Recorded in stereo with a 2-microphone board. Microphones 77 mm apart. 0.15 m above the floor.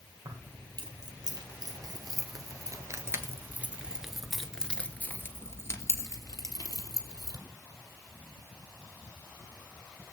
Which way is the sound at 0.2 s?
70° right (ahead or behind).